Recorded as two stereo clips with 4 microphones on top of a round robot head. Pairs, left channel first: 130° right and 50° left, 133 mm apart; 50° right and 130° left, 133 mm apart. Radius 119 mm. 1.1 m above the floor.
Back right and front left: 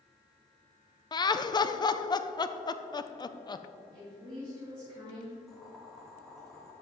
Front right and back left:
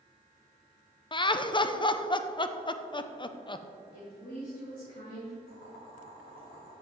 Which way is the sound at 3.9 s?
5° right.